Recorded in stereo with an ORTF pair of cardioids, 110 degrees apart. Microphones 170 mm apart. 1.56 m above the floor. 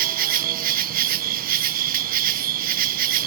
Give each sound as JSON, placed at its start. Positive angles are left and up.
{"t": 0.0, "sound": "an insect", "azimuth_deg": -60}